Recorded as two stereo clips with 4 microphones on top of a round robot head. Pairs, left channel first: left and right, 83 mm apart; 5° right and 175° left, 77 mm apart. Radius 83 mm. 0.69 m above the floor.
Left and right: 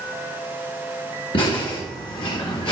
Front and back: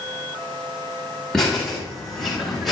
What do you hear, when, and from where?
1.3 s laughter: 80° left, 5.5 m; by 2.7 s 85° left, 5 m